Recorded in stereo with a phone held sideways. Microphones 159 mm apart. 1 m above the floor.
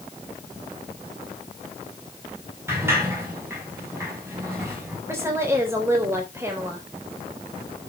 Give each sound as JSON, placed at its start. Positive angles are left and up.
{"t": 2.7, "sound": "a sliding door", "side_deg": -15, "distance_m": 6.0}
{"t": 5.1, "sound": "a woman speaking", "side_deg": -15, "distance_m": 4.0}